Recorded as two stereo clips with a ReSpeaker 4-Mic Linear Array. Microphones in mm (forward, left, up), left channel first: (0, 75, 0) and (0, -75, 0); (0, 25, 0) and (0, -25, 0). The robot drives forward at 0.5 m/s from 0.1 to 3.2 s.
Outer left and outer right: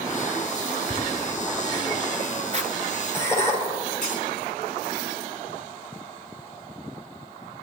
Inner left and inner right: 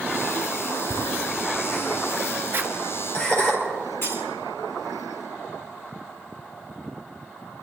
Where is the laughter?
25° left (ahead or behind), 2.5 m; by 3.5 s 20° left (ahead or behind), 3 m.